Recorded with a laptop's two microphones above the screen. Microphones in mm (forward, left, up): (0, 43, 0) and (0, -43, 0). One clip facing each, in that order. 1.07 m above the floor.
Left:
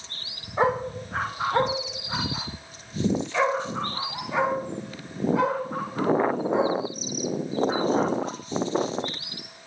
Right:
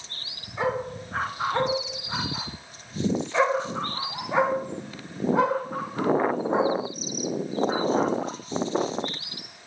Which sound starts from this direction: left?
A dog barking, at 0.6 s.